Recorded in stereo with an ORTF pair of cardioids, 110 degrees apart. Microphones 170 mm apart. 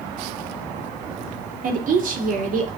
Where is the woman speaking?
55° right, 3 m.